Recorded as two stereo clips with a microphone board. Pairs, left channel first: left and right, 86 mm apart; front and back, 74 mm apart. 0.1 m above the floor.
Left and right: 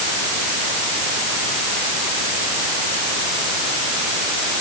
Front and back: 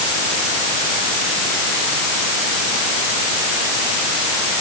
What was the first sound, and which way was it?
Only background noise.